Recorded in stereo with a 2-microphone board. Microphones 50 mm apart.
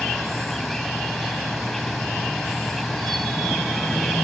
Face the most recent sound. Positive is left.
turn(degrees=5)  # may be behind; listen again after turning